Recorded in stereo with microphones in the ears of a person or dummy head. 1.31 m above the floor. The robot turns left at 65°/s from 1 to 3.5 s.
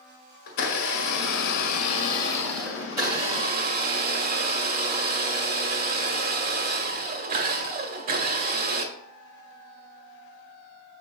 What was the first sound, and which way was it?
A blender, 105° left.